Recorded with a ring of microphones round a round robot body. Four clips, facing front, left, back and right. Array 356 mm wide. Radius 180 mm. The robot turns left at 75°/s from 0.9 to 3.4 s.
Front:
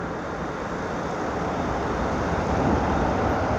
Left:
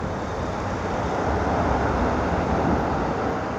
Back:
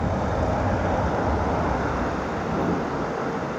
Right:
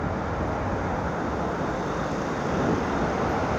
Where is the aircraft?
175° left; by 3.6 s 10° right.